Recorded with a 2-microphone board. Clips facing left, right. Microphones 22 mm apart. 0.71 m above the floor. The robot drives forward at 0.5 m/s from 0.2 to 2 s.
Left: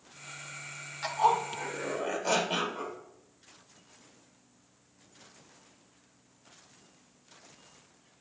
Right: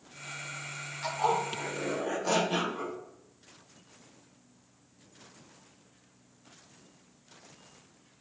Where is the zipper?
15° left (ahead or behind), 0.8 m; by 3.0 s 10° left (ahead or behind), 1.3 m.